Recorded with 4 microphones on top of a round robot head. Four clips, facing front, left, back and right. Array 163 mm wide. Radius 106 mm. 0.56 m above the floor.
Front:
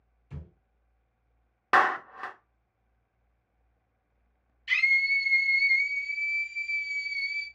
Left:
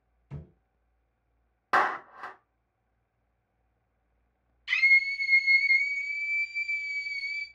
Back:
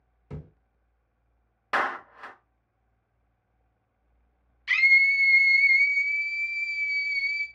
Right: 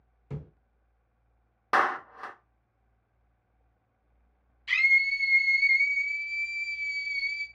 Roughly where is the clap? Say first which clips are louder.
Even, front 5 dB; ahead.